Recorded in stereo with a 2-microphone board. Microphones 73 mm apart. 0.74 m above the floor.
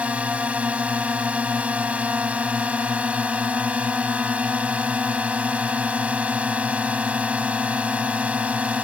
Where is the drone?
20° right (ahead or behind).